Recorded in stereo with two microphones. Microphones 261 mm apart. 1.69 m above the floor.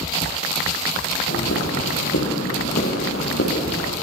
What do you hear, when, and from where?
1.3 s footsteps: 70° left (ahead or behind), 8.5 m; by 3.9 s 65° left (ahead or behind), 10 m